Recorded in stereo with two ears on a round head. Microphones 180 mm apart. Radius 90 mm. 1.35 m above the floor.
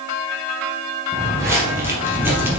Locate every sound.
1.1 s footsteps: 15° right (ahead or behind), 3 m; by 2.6 s 10° right (ahead or behind), 2.5 m